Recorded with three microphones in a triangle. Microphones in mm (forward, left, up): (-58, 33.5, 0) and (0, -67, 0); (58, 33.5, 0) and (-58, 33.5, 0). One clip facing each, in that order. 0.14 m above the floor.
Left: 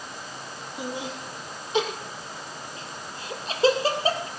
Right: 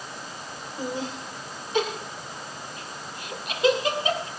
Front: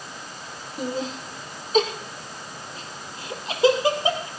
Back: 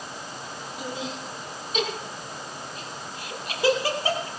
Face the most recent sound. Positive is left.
turn(degrees=70)